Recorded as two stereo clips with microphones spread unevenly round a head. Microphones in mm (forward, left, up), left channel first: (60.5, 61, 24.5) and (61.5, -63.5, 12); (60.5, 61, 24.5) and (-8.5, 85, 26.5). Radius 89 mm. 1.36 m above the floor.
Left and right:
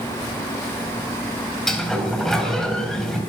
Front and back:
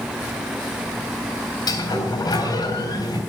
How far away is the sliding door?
About 4.5 m.